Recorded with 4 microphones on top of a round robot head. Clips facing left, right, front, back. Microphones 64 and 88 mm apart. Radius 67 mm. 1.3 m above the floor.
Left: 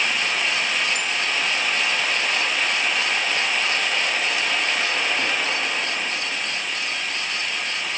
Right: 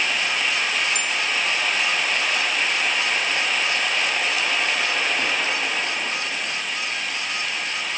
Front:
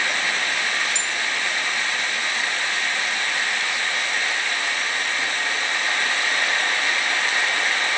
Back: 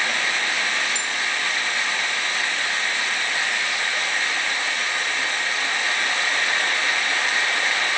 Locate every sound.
0.9 s a bell: 40° right